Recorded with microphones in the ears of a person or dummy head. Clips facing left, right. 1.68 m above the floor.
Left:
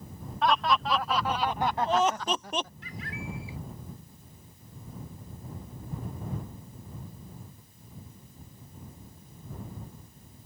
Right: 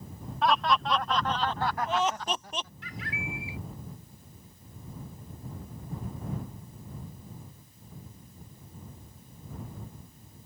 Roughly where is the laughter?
Centre.